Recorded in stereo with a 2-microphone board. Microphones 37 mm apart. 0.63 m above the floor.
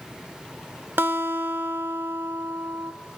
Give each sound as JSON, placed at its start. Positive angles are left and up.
{"t": 1.0, "sound": "a guitar", "side_deg": -80, "distance_m": 0.9}